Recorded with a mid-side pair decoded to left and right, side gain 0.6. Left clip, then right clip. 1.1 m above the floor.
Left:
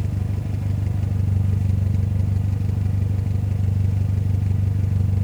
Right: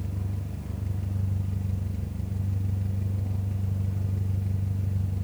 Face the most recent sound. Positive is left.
turn(degrees=50)